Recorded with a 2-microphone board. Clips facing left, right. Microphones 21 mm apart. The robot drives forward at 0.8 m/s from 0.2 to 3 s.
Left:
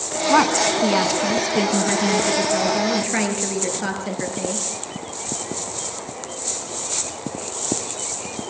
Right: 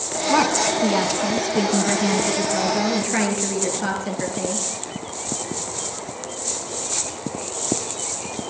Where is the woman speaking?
20° left (ahead or behind), 1.3 m; by 4.7 s 10° left (ahead or behind), 2.5 m.